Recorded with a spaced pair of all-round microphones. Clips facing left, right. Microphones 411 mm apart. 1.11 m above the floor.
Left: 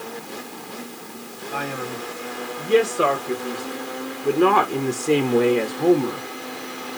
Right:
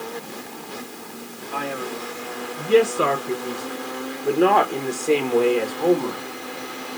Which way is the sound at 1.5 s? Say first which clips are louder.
Right 1 dB; 10° right (ahead or behind).